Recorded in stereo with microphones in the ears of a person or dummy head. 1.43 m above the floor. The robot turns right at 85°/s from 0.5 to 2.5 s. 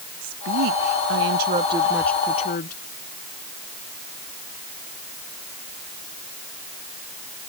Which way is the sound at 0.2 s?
125° right.